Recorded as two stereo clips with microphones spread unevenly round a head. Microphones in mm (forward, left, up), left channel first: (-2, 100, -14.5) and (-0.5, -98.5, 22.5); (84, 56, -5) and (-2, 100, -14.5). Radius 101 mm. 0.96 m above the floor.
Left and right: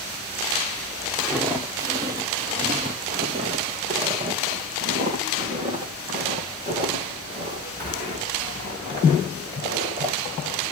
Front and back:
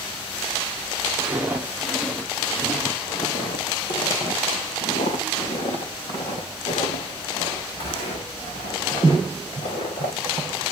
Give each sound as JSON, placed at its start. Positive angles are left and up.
{"t": 1.2, "sound": "footsteps", "azimuth_deg": -150, "distance_m": 1.1}